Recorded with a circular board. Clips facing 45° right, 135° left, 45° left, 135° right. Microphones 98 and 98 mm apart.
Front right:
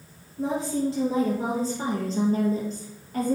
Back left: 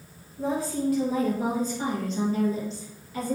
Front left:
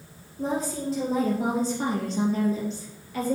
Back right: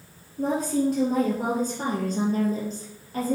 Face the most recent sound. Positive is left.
turn(degrees=-80)